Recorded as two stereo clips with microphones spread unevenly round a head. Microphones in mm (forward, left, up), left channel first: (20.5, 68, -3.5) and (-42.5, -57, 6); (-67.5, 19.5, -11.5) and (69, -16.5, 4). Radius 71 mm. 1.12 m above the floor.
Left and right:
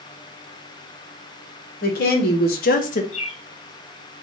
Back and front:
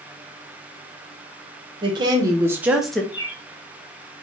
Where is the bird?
100° left, 1.0 m.